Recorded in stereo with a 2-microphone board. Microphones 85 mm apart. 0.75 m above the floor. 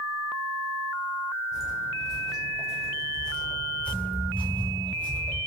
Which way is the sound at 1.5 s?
Centre (ahead or behind).